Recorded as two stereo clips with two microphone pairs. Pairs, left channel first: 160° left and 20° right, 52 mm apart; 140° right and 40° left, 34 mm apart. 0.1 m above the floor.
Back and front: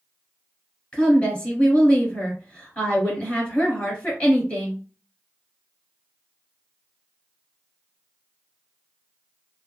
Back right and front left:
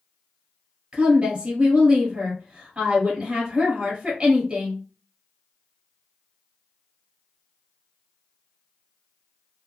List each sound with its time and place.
0.9 s a woman speaking: 105° left, 1.6 m